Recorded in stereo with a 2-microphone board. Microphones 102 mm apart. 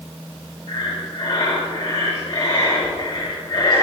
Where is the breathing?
60° left (ahead or behind), 5 m.